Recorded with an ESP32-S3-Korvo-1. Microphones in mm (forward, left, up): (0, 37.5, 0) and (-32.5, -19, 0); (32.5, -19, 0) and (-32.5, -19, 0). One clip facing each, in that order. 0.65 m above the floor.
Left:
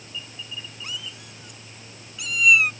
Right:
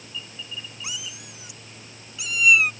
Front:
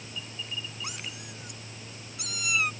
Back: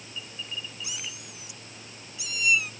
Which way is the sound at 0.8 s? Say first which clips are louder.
Left 1 dB, front 1 dB; 40° right.